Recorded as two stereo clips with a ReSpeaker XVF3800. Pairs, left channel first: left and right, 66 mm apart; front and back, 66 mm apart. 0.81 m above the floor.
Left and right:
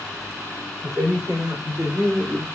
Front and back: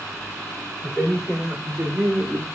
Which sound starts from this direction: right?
A man speaking, at 0.8 s.